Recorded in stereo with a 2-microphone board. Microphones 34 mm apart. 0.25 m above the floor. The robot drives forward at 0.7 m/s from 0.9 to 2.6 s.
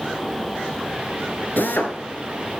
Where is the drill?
75° left (ahead or behind), 2.0 m; by 2.0 s 70° left (ahead or behind), 2 m.